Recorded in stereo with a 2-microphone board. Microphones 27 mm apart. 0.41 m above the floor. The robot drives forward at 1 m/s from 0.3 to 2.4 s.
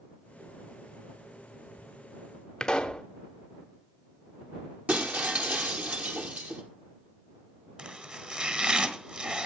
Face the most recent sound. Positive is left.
turn(degrees=-40)  # may be behind; listen again after turning